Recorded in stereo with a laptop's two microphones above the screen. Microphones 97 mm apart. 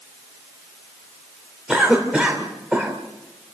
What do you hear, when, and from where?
1.7 s a cough: 10° right (ahead or behind), 3 m